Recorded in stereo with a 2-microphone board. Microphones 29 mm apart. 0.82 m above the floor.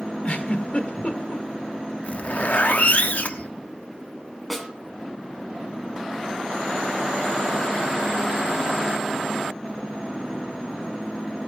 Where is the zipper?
65° left (ahead or behind), 1.1 m.